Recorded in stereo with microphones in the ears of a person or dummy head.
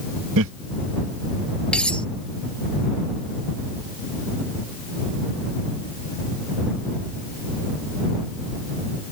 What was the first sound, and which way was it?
Laughter, 70° right (ahead or behind).